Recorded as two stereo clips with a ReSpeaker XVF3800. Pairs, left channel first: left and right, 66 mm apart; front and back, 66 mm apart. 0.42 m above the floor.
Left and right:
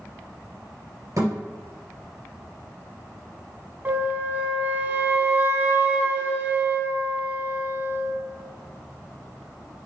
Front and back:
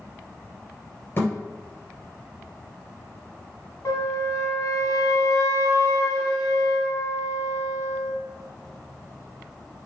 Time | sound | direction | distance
1.2 | a thud | 55° right | 3 m
3.9 | a flute | 30° right | 1.2 m